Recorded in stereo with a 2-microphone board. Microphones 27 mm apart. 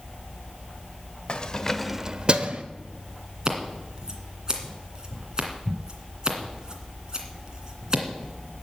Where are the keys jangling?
40° left (ahead or behind), 1.1 m; by 2.6 s 60° right (ahead or behind), 1.1 m.